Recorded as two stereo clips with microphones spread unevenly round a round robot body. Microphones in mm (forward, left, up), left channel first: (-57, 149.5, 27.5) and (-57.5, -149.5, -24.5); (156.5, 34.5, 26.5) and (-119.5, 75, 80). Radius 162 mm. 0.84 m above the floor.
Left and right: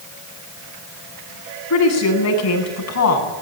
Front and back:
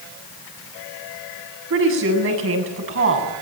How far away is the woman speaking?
About 9 m.